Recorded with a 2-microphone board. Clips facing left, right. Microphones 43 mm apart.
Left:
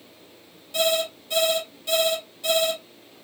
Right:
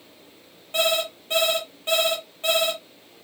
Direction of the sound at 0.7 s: 45° right (ahead or behind).